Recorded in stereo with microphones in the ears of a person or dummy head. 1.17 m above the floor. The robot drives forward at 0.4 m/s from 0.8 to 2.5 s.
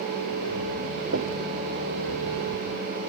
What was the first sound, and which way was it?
Knocking, 90° right.